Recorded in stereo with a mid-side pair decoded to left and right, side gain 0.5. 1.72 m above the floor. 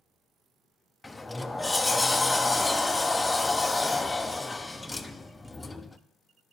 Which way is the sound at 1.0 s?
15° left.